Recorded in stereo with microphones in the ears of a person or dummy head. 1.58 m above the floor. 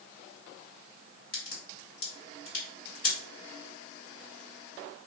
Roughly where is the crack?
Left.